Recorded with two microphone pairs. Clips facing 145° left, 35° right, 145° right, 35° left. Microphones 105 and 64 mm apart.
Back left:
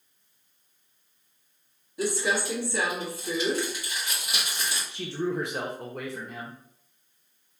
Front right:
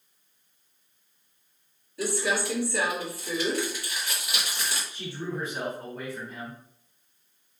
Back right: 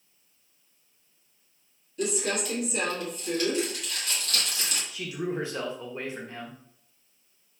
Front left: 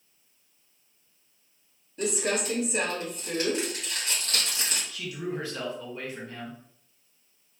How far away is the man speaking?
About 0.7 m.